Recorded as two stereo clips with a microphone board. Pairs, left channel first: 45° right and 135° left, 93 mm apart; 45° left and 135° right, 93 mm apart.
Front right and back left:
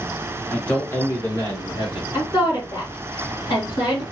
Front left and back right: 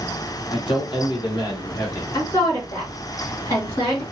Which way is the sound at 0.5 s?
35° left.